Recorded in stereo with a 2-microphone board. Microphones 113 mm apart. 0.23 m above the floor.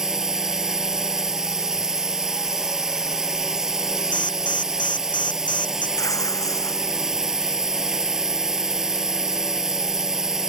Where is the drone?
5° right (ahead or behind).